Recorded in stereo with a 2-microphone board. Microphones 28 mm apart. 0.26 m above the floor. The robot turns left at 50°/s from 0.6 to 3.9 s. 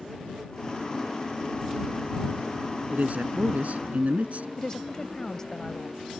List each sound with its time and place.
2.9 s a man speaking: 60° right; by 4.5 s 110° right
4.6 s a woman speaking: 25° left (ahead or behind)